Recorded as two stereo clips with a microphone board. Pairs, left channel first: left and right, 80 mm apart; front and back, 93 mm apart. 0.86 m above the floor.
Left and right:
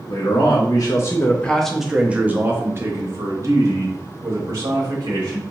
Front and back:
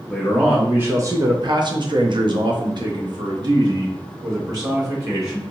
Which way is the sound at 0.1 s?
95° left.